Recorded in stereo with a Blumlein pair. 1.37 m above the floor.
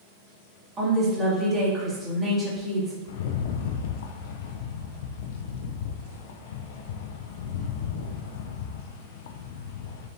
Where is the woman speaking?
20° right, 2.5 m.